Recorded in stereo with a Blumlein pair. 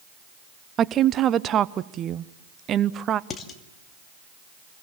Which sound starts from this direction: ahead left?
Dishes clattering, at 3.3 s.